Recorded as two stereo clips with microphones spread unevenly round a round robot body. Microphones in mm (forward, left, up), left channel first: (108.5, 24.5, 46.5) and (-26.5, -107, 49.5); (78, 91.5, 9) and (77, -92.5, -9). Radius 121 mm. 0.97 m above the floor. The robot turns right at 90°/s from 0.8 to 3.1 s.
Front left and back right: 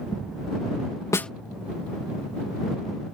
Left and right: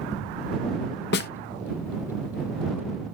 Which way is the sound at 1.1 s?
115° left.